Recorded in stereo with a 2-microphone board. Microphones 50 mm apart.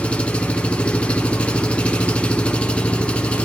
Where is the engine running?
20° left (ahead or behind), 1.7 m.